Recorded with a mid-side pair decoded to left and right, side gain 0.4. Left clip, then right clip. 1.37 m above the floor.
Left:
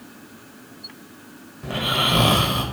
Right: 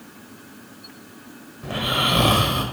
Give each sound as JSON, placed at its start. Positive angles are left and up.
{"t": 1.6, "sound": "snoring", "azimuth_deg": 15, "distance_m": 1.0}